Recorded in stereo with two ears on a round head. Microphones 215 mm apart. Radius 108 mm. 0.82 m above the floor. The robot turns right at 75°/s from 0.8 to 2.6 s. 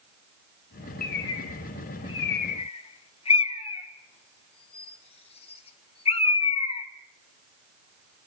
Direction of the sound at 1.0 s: 35° left (ahead or behind).